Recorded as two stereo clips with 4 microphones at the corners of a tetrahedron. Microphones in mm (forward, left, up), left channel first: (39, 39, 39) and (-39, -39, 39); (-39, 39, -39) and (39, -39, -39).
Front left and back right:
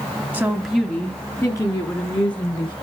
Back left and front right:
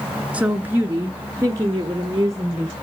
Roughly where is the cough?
I don't hear a cough.